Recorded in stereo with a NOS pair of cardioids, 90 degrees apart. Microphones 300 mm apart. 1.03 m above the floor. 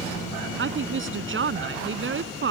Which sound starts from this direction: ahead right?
A woman speaking, at 0.6 s.